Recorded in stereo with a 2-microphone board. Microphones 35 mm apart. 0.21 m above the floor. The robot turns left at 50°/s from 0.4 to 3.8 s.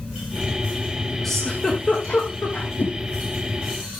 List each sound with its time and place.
1.2 s a giggle: 5° left (ahead or behind), 6 m; by 2.7 s 80° left, 6 m
2.8 s a whoosh: 60° left (ahead or behind), 2.5 m; by 3.0 s 65° left (ahead or behind), 2.5 m